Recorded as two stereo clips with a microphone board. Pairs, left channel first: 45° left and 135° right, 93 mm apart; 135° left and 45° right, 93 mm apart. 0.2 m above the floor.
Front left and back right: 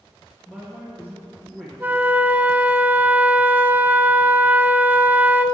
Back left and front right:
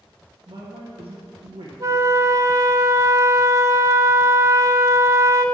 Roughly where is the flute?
Right.